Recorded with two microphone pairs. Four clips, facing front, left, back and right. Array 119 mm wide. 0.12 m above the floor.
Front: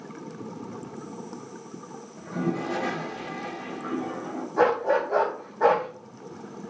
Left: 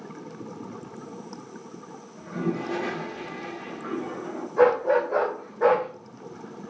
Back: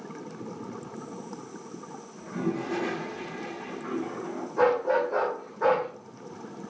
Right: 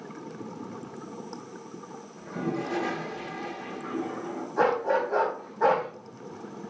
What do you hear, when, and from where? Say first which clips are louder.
2.2 s a toilet flushing: left 2 dB, front 2 dB; straight ahead, 3 m
4.6 s a dog barking: left 5 dB, front 1 dB; 15° right, 2.5 m